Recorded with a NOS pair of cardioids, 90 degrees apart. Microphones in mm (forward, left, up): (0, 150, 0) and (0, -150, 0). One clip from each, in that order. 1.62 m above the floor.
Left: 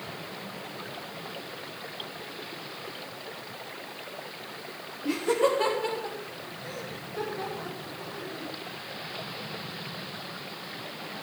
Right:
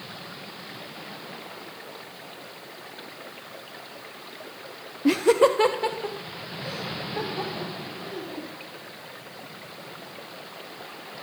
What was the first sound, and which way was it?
Laughter, 65° right.